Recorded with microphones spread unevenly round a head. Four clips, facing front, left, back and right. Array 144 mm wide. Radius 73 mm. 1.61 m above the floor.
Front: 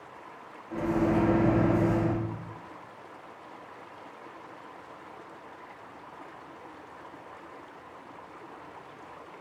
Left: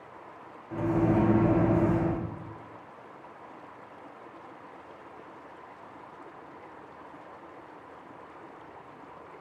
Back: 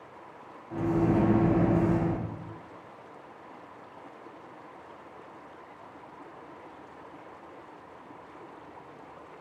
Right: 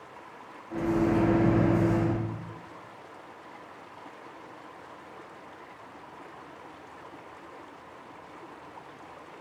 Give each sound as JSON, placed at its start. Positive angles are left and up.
{"t": 0.7, "sound": "a microwave", "azimuth_deg": -5, "distance_m": 1.8}